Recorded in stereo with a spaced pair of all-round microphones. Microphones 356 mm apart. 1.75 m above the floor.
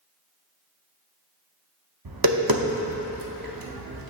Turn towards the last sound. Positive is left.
turn(degrees=-65)  # may be behind; listen again after turning